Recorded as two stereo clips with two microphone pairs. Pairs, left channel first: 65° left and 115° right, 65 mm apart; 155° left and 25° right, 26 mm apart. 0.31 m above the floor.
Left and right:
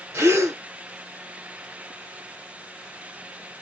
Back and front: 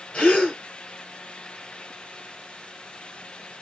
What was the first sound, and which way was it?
A gasp, 160° right.